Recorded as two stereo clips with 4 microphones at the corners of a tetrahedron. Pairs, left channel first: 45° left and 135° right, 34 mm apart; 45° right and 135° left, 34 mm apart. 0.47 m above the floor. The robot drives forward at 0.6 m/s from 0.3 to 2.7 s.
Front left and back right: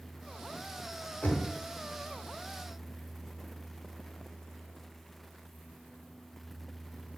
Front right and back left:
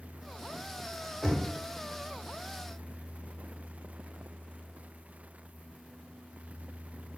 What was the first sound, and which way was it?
Knocking, 45° left.